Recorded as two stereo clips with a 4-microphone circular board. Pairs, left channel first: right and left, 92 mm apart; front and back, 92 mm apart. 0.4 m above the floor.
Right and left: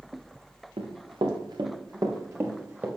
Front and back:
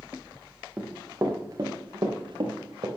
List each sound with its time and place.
0.8 s running footsteps: 105° left, 2.5 m; by 2.9 s 160° left, 3 m